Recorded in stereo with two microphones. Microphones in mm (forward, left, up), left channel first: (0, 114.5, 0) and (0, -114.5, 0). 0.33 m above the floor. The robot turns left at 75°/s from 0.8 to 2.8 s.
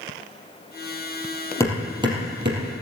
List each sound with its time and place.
1.6 s hammering: 15° left (ahead or behind), 3.5 m; by 2.7 s 65° right (ahead or behind), 3.5 m